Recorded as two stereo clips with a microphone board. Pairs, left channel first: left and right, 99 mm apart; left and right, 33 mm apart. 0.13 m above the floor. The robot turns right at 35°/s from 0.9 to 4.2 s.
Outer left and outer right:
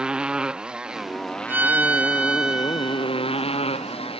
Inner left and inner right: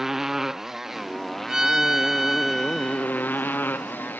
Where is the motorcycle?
10° right; by 4.2 s 105° left.